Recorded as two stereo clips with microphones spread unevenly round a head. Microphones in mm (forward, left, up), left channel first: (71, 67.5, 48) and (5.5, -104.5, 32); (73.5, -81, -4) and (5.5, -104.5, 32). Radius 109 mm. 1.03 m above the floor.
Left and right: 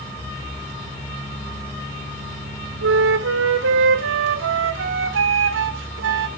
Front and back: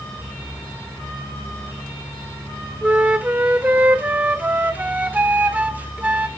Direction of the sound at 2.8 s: 95° right.